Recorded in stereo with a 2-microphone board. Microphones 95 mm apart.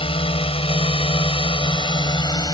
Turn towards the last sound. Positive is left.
turn(degrees=45)  # may be behind; listen again after turning